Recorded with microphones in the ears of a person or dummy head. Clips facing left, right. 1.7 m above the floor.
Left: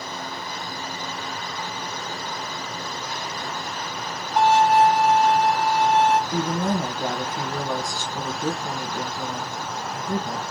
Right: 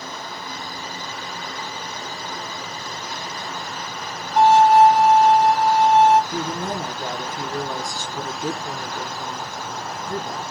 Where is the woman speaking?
25° left (ahead or behind), 1.5 m.